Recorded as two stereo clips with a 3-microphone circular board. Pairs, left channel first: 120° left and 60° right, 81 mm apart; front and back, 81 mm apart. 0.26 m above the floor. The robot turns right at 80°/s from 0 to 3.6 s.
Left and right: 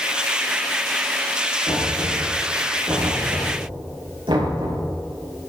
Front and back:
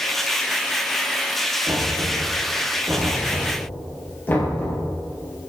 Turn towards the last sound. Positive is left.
turn(degrees=-65)